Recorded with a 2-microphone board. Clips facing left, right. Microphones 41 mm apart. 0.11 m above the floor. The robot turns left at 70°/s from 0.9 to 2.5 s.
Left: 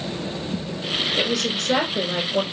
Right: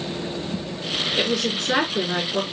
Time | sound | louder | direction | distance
1.2 | a woman speaking | even | 10° right | 1.9 m